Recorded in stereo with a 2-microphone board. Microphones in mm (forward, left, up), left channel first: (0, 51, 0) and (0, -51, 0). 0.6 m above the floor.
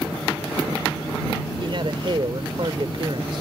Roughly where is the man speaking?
Right.